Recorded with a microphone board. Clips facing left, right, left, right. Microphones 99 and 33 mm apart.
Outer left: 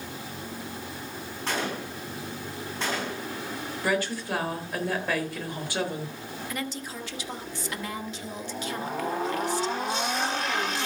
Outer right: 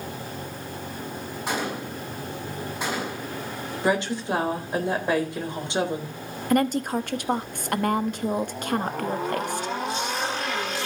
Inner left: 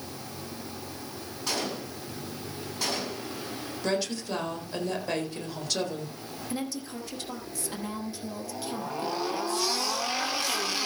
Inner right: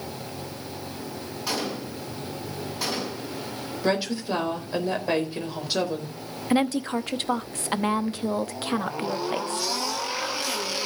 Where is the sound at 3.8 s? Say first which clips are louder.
Outer right 4 dB, inner right 4 dB; 20° right (ahead or behind), 3.5 m.